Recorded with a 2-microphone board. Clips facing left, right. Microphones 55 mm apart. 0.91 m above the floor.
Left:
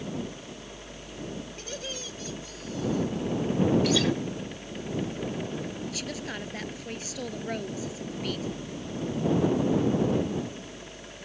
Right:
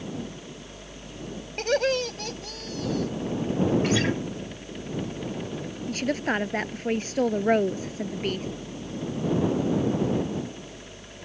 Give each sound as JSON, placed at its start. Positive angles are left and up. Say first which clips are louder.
{"t": 1.6, "sound": "laughter", "louder": "right 14 dB", "side_deg": -70}
{"t": 3.8, "sound": "a guitar", "louder": "right 1 dB", "side_deg": -35}
{"t": 5.9, "sound": "a woman speaking", "louder": "right 9 dB", "side_deg": -45}